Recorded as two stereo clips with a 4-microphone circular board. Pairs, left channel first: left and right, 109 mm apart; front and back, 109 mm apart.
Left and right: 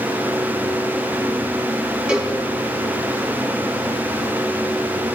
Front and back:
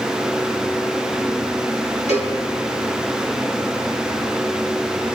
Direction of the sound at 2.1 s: 10° right.